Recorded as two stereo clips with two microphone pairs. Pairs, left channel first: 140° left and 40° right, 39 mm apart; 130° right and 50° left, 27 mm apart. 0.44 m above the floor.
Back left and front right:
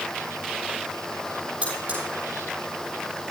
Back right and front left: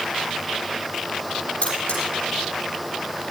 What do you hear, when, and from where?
1.6 s cutlery clinking: 100° right, 8.5 m